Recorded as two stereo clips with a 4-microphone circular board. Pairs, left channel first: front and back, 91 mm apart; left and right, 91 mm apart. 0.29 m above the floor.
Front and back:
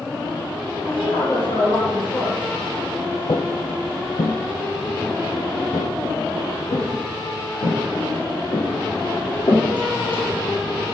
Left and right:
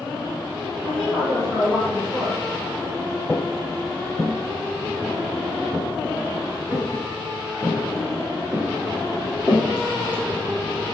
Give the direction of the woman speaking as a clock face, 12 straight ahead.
12 o'clock.